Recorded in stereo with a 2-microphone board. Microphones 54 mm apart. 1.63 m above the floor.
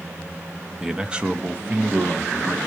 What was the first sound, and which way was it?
A man speaking, 15° right (ahead or behind).